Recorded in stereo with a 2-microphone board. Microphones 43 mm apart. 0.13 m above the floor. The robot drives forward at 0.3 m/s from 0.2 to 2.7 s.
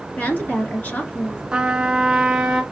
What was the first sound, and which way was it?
A woman speaking, 45° left (ahead or behind).